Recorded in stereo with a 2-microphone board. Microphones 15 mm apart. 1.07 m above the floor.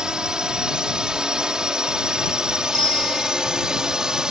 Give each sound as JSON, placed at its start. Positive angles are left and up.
{"t": 0.0, "sound": "a drone", "side_deg": -60}
{"t": 2.7, "sound": "a bicycle bell", "side_deg": 70}